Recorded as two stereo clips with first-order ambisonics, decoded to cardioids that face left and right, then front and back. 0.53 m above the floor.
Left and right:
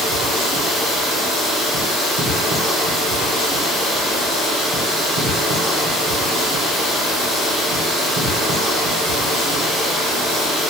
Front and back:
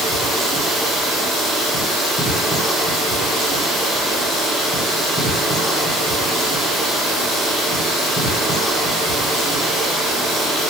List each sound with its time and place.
0.0 s running water: 75° right, 1.3 m